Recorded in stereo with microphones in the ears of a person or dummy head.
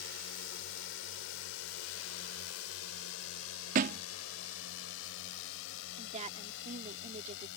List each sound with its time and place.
0.0 s a drone: 65° left (ahead or behind); by 7.6 s 70° left (ahead or behind)
3.8 s a thud: 45° right (ahead or behind)
6.0 s a woman speaking: 35° right (ahead or behind)